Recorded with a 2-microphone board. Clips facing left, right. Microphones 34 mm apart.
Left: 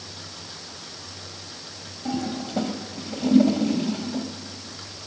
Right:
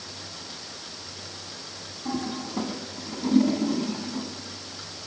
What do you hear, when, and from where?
2.0 s a toilet flushing: 70° left (ahead or behind), 2.5 m